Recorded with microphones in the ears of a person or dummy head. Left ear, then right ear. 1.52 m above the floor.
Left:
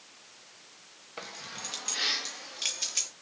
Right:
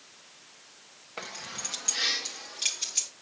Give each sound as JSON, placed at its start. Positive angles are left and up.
{"t": 1.2, "sound": "keys jangling", "side_deg": -20, "distance_m": 1.3}